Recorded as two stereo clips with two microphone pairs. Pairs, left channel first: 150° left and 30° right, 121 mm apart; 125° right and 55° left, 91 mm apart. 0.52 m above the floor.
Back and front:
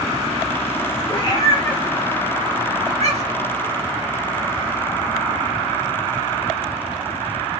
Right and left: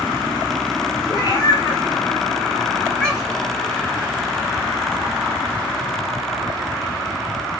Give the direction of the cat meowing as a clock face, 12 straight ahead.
5 o'clock.